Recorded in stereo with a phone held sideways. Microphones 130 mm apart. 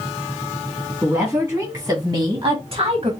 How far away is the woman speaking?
About 2.5 m.